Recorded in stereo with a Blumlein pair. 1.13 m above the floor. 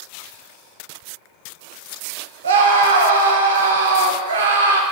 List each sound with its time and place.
2.4 s a scream: 65° right, 0.5 m